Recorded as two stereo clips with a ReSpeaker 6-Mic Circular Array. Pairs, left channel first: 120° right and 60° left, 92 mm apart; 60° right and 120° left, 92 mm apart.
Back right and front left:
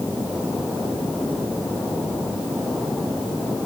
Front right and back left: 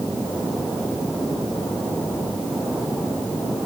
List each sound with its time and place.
Only background noise.